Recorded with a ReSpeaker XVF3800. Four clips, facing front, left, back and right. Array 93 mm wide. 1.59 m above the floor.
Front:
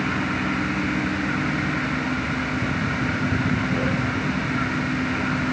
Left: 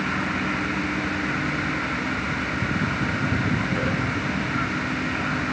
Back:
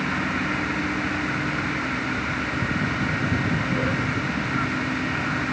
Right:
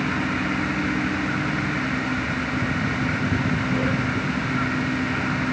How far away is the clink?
I don't hear a clink.